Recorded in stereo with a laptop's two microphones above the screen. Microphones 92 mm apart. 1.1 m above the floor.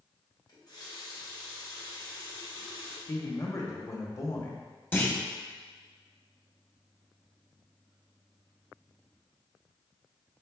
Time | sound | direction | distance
0.5 | a running tap | 45° left (ahead or behind) | 0.9 m
3.1 | a man speaking | 35° left (ahead or behind) | 1.1 m
4.9 | a clunk | 20° left (ahead or behind) | 1.1 m